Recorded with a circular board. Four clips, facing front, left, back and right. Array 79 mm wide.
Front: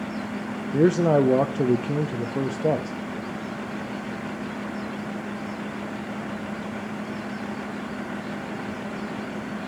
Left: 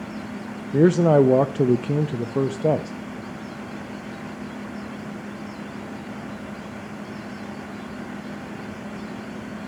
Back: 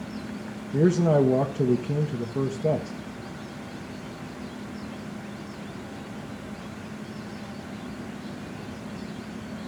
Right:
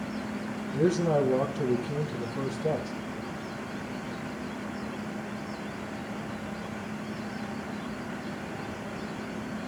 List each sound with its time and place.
0.7 s a man speaking: 70° left, 0.8 m